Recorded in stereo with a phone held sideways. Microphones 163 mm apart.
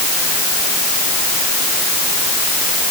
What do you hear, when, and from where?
Only background noise.